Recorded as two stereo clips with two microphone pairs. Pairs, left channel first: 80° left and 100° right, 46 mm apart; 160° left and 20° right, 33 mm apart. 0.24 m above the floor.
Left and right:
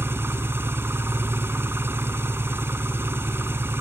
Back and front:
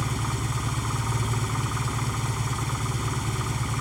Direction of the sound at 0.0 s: 105° right.